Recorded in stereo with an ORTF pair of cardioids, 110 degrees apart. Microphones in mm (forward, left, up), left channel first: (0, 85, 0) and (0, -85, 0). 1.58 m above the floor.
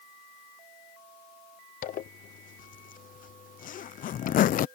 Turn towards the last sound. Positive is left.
turn(degrees=50)